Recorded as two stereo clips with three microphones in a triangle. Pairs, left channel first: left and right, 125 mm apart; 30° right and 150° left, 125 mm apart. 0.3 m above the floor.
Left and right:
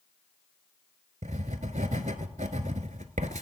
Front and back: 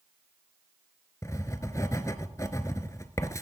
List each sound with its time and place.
1.2 s writing: 95° right, 0.6 m